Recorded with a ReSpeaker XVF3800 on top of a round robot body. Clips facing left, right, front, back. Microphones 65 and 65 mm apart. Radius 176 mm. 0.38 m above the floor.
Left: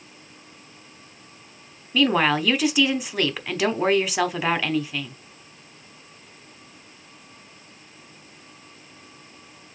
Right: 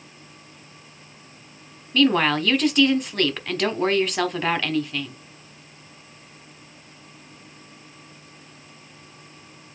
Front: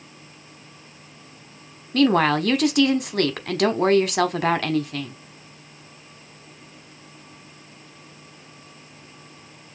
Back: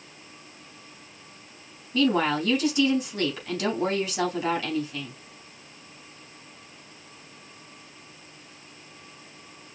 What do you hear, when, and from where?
1.9 s a woman speaking: 5° left, 1.2 m